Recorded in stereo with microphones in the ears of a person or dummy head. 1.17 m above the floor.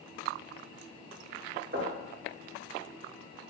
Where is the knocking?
65° right (ahead or behind), 3.5 m.